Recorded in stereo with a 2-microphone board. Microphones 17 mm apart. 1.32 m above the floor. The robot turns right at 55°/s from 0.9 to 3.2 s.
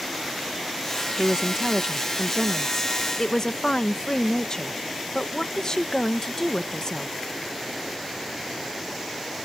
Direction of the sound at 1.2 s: 70° right.